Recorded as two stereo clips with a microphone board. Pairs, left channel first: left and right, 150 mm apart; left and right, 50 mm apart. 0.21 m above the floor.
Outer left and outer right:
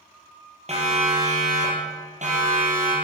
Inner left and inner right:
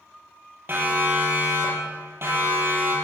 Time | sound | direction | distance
0.7 | a siren | 45° right (ahead or behind) | 5 m